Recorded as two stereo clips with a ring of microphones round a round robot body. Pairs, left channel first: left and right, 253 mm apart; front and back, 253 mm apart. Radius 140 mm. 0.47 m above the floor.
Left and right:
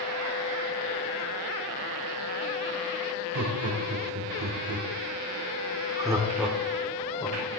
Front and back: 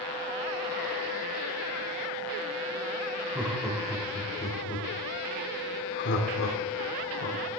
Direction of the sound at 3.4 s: 95° right.